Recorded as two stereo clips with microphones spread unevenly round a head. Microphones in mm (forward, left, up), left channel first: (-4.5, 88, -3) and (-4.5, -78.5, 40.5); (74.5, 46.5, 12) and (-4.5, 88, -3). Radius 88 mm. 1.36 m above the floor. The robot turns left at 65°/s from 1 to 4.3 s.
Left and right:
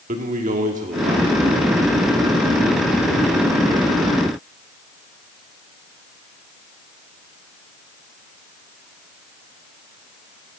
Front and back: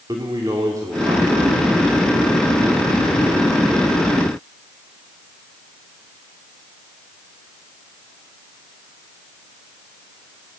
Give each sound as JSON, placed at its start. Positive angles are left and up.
{"t": 0.1, "sound": "a man speaking", "azimuth_deg": -135, "distance_m": 3.0}